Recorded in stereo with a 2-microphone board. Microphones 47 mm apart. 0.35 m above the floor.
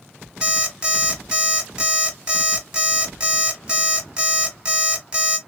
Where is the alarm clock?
20° right (ahead or behind), 1.7 m.